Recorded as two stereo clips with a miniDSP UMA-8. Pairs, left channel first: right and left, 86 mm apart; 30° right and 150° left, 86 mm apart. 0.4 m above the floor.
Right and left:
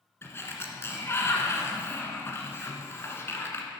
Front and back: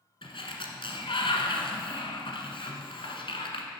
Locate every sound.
0.2 s a sliding door: 30° right, 1.4 m